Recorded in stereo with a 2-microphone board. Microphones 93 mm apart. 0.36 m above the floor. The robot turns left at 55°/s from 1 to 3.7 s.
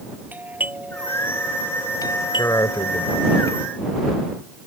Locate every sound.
0.3 s a doorbell: 160° right; by 3.4 s 65° left
2.4 s a man speaking: 125° left; by 3.7 s 55° left